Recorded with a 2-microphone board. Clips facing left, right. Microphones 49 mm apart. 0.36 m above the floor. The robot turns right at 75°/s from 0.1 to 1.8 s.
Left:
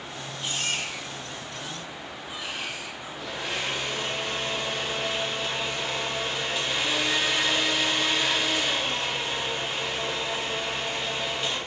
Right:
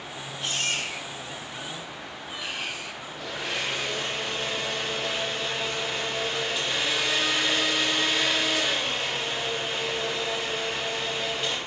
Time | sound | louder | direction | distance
0.4 | a baby crying | right 1 dB | 130° right | 6 m
3.1 | a blender | even | 5° right (ahead or behind) | 6 m